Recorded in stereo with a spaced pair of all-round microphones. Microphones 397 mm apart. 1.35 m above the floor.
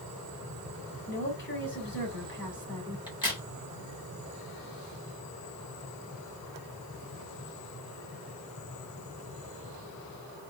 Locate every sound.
1.1 s a woman speaking: 25° left (ahead or behind), 2.5 m
3.1 s a crack: 10° left (ahead or behind), 1.8 m